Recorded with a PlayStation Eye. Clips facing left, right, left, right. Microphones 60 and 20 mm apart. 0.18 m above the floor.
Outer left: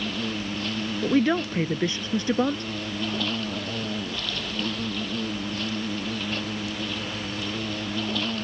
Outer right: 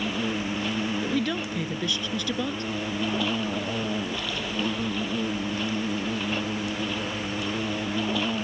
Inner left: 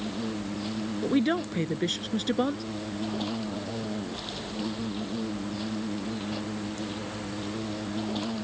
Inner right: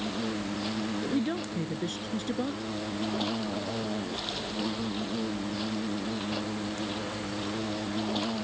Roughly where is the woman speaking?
Left.